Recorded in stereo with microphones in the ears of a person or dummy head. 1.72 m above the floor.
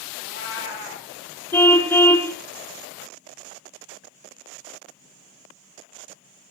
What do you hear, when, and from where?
0.2 s a cat meowing: 60° left (ahead or behind), 4.5 m
1.5 s a car horn: 10° left (ahead or behind), 2.5 m